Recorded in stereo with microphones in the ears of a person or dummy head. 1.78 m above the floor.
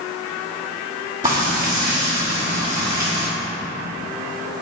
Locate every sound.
1.2 s frying: 25° right (ahead or behind), 1.3 m